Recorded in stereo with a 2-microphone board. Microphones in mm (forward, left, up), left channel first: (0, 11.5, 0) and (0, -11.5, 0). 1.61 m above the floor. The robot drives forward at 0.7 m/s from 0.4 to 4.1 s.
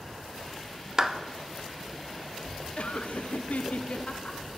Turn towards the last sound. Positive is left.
turn(degrees=50)  # may be behind; listen again after turning